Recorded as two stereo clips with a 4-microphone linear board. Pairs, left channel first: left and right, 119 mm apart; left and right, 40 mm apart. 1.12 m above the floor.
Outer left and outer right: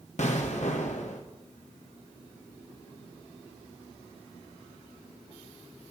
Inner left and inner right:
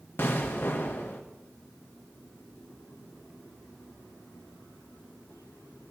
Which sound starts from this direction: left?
An explosion, at 0.2 s.